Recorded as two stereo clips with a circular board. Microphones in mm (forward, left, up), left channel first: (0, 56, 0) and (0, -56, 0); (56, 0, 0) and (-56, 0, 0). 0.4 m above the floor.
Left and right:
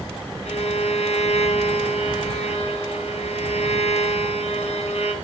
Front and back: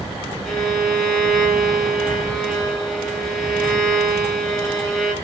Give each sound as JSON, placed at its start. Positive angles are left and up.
{"t": 0.5, "sound": "a violin", "azimuth_deg": 90, "distance_m": 5.0}